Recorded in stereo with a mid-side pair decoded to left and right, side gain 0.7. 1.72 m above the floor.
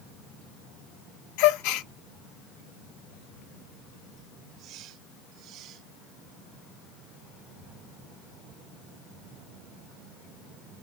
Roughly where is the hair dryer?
I don't hear a hair dryer.